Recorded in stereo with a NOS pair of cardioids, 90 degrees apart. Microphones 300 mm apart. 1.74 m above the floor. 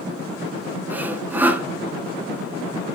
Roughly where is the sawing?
Ahead.